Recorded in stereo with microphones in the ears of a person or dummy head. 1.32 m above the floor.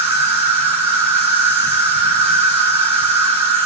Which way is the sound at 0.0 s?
35° right (ahead or behind).